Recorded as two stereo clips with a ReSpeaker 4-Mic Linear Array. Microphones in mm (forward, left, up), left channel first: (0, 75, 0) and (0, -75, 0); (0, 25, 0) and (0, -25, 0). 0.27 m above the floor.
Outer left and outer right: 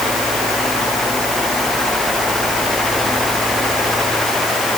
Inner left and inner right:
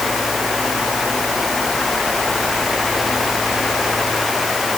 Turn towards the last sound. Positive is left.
No sound to turn to.